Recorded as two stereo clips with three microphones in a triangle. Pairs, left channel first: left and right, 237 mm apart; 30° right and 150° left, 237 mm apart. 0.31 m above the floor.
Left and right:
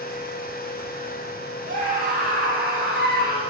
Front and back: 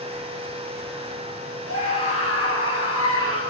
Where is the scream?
35° right, 9 m; by 3.4 s 45° right, 7 m.